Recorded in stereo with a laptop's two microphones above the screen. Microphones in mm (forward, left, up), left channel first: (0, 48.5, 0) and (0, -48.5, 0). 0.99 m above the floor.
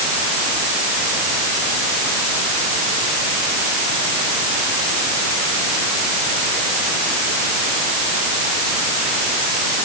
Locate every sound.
Only background noise.